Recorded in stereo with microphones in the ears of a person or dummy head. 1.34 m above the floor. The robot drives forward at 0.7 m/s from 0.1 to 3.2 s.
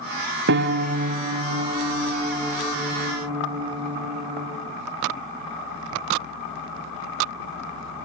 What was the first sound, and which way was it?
A piano, 60° right (ahead or behind).